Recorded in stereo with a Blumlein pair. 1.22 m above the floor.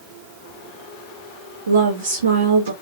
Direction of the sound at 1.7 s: 65° right.